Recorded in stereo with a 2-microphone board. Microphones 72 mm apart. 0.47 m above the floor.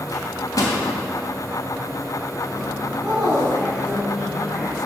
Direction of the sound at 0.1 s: 55° left (ahead or behind).